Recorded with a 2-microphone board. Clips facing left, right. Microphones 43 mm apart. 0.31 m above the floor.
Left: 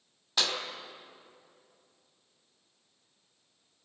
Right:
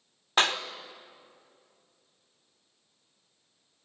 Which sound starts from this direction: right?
A clap, at 0.4 s.